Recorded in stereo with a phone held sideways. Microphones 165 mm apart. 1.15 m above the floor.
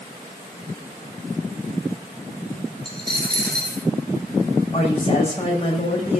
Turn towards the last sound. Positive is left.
turn(degrees=40)  # may be behind; listen again after turning